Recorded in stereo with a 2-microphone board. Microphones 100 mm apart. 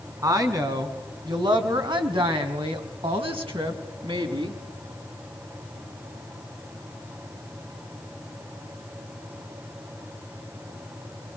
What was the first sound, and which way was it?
A woman speaking, 35° right (ahead or behind).